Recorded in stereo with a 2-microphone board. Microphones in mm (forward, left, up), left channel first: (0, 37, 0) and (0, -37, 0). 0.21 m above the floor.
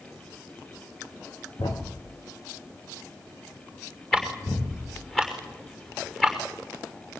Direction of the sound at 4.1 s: 5° left (ahead or behind).